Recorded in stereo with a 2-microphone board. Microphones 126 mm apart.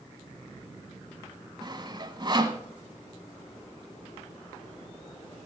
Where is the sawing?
35° right (ahead or behind), 1.1 m.